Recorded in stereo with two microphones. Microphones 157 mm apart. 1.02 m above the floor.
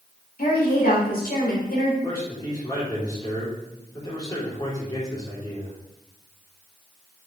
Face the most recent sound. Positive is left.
turn(degrees=25)  # may be behind; listen again after turning